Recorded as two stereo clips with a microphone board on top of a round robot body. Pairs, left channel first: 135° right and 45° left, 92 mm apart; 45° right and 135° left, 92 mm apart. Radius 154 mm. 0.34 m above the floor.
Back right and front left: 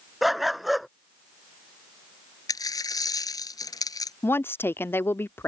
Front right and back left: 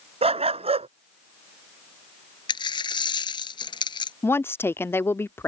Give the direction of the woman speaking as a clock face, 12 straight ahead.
3 o'clock.